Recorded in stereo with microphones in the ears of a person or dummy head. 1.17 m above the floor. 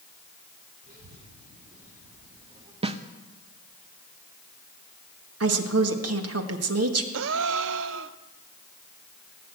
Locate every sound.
0.8 s a child speaking: 45° right (ahead or behind), 3 m; by 2.7 s 35° right (ahead or behind), 2 m
2.8 s a snare drum: 30° right (ahead or behind), 0.7 m
5.4 s a woman speaking: 75° right (ahead or behind), 1.9 m
7.1 s a gasp: 65° right (ahead or behind), 0.6 m